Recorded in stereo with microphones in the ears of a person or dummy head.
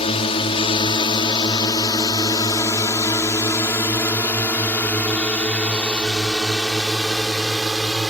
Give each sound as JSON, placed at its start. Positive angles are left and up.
{"t": 0.0, "sound": "a drone", "side_deg": 30}